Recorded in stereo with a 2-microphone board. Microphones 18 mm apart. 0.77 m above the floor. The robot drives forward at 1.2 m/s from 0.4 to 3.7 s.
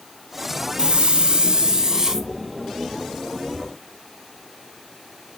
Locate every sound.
0.8 s a hiss: 60° right (ahead or behind), 1.0 m; by 2.3 s 25° right (ahead or behind), 1.8 m